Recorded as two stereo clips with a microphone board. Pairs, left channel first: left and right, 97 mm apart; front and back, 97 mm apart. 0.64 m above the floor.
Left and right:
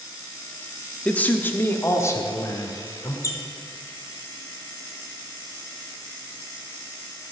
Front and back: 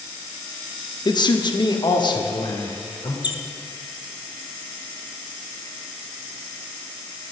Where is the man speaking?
15° left, 0.8 m; by 3.1 s 40° left, 1.7 m.